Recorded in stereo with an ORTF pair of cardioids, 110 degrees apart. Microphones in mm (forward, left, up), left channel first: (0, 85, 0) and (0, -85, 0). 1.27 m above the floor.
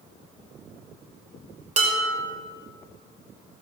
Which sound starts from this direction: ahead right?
Dishes clattering, at 1.8 s.